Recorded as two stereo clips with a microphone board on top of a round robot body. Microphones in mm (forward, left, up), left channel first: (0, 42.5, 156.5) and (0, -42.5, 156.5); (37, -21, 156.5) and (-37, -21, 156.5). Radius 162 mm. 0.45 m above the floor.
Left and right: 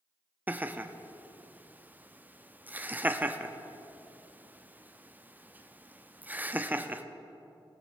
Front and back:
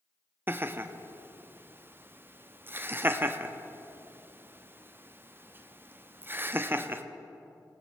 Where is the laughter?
145° right, 0.9 m.